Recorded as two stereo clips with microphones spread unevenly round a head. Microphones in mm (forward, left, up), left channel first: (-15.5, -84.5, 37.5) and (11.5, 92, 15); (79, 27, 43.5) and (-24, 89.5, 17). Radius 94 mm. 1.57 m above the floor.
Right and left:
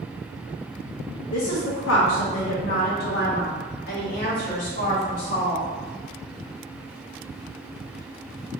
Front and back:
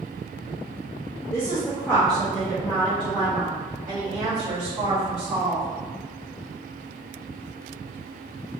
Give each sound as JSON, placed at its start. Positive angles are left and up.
{"t": 1.3, "sound": "a woman speaking", "azimuth_deg": -95, "distance_m": 0.8}